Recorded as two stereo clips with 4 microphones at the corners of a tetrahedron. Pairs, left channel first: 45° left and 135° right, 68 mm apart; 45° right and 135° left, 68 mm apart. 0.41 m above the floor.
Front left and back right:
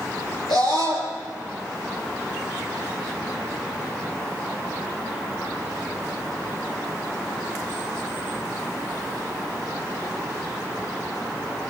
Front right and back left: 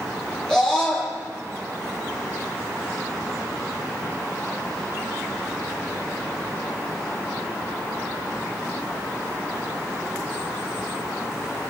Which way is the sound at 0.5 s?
35° left.